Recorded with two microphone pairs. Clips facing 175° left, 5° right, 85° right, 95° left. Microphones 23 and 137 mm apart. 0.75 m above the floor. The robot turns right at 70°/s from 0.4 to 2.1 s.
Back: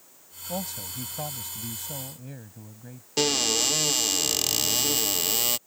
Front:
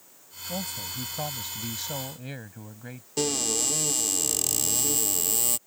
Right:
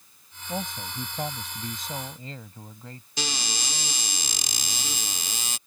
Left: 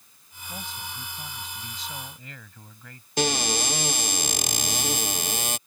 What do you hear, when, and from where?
0.5 s a man speaking: 135° right; by 3.1 s 25° right
3.2 s a cupboard door: 130° left